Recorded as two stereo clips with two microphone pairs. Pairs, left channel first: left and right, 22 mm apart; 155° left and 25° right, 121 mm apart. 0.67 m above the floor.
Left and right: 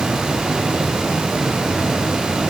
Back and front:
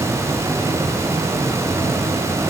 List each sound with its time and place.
Only background noise.